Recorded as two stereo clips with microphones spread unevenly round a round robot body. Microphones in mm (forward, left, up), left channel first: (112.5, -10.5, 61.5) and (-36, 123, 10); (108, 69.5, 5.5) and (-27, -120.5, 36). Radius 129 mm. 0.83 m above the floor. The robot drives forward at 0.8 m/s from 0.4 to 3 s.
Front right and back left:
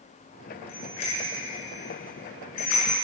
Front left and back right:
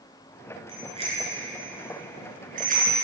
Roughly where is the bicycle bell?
Ahead right.